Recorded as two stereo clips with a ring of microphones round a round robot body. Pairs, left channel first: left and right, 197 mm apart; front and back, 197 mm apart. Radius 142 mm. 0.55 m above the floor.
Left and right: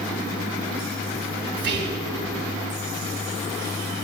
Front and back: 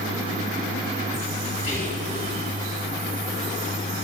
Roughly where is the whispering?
Ahead right.